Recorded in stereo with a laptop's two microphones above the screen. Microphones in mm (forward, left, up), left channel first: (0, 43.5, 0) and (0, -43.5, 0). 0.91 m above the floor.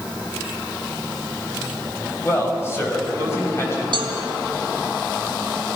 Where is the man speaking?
30° left (ahead or behind), 5.5 m.